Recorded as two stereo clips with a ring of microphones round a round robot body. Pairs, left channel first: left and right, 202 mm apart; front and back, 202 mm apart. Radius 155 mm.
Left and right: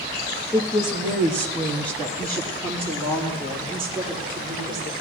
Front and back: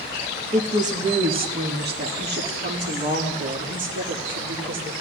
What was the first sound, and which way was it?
A woman speaking, 155° left.